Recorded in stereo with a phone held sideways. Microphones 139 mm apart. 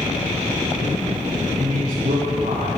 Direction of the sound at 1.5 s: 80° right.